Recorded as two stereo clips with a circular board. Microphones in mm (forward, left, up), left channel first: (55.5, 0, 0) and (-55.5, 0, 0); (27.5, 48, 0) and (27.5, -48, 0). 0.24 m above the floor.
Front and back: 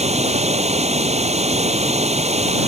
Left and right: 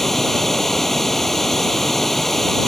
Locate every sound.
0.0 s running water: 175° left